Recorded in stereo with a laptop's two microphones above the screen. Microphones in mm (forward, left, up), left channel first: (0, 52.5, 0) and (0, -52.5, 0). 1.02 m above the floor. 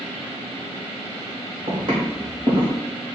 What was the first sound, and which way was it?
Footsteps, 45° right (ahead or behind).